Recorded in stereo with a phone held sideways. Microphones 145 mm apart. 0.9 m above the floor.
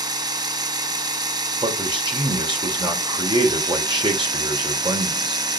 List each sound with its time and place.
0.0 s a machine running: 30° right (ahead or behind), 0.8 m
1.6 s a man speaking: 35° right (ahead or behind), 2.5 m